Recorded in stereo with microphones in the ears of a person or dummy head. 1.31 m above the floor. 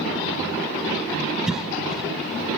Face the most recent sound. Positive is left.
turn(degrees=-5)  # may be behind; listen again after turning